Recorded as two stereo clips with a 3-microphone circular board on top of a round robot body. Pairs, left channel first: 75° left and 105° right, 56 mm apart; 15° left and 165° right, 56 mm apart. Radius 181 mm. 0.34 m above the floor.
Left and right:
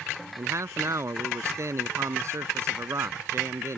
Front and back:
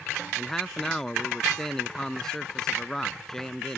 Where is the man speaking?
65° right.